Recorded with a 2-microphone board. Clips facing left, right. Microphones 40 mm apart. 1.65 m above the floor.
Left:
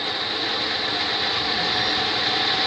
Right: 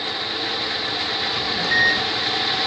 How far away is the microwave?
About 0.7 m.